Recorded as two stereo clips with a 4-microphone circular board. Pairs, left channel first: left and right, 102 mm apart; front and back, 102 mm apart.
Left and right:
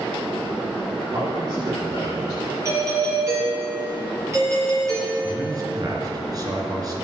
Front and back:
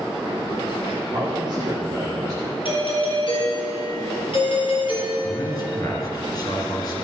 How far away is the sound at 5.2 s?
About 3.5 m.